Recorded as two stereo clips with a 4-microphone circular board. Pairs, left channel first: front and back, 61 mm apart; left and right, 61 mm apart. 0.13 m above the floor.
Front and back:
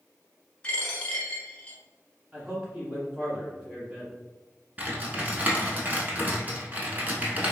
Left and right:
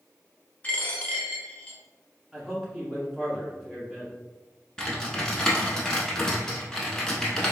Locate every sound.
0.6 s a dropped coin: 50° left, 0.7 m
2.3 s a man speaking: 160° right, 1.5 m
4.8 s typing on a keyboard: 155° left, 0.7 m